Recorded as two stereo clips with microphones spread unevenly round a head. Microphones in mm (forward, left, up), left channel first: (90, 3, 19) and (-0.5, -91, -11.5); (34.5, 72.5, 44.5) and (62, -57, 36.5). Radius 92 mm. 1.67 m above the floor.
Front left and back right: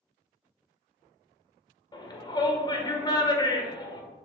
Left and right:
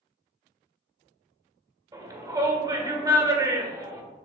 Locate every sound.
1.9 s a shout: 15° right, 1.9 m